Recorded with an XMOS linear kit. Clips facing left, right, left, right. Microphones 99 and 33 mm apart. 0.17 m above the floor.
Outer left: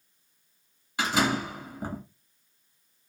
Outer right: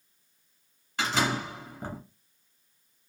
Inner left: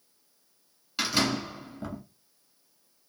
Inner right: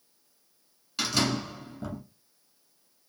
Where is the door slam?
10° left (ahead or behind), 1.5 m.